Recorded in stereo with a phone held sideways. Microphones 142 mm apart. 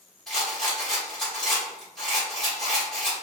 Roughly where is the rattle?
Centre.